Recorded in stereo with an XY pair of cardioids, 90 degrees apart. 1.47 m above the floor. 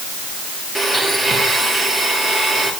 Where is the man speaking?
No man speaking in this recording.